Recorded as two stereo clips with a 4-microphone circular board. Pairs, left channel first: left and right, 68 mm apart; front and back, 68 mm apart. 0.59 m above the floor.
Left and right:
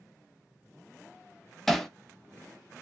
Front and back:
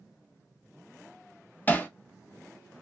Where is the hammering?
10° left, 0.5 m.